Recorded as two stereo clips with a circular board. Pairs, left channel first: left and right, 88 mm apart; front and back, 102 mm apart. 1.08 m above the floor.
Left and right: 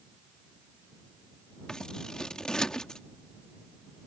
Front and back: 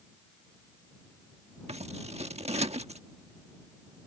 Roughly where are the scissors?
Behind.